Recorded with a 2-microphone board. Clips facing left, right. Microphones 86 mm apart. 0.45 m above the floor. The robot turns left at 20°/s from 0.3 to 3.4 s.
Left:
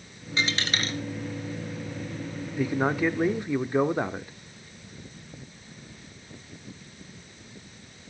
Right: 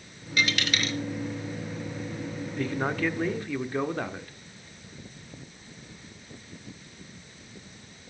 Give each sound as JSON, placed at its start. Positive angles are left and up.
{"t": 0.4, "sound": "a dropped coin", "side_deg": 25, "distance_m": 2.0}
{"t": 2.6, "sound": "a man speaking", "side_deg": 10, "distance_m": 0.7}